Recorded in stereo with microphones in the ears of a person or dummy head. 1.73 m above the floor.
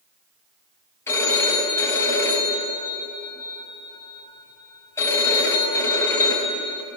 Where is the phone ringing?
20° left (ahead or behind), 6 m.